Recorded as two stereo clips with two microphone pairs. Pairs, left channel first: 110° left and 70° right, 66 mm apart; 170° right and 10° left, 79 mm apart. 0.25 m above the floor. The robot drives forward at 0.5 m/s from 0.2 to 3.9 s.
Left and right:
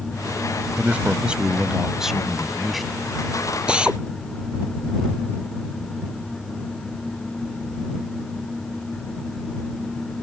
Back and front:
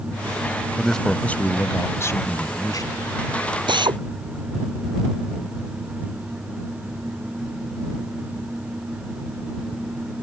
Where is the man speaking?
90° right; by 3.0 s 160° right.